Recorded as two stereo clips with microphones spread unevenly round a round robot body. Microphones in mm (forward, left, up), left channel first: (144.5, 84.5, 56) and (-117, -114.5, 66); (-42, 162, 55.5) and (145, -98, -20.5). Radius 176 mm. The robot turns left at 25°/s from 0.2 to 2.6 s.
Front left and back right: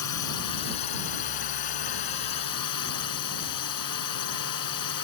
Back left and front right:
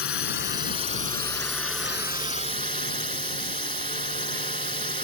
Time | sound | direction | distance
0.0 | a drone | 70° left | ?